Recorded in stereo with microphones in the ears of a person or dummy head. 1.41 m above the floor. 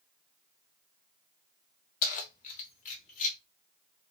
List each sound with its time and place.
2.0 s keys jangling: 45° left (ahead or behind), 0.9 m; by 3.4 s 40° left (ahead or behind), 1.8 m